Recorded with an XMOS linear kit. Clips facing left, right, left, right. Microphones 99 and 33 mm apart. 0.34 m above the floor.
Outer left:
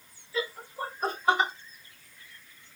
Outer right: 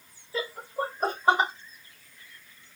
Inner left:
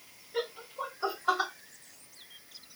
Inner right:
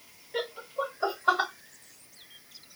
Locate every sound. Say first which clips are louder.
0.3 s laughter: outer right 2 dB, inner right 3 dB; 35° right (ahead or behind), 1.5 m